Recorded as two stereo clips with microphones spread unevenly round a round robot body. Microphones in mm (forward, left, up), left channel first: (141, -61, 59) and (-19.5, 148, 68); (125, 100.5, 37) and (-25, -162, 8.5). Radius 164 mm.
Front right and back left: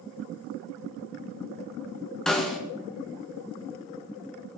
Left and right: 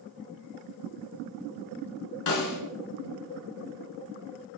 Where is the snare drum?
35° left, 4 m.